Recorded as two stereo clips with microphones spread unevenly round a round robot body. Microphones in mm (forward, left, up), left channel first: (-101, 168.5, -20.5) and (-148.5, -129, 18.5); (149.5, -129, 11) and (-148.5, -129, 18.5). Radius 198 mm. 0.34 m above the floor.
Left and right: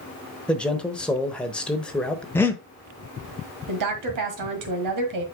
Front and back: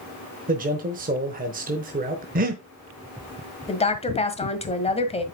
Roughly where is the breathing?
Behind left.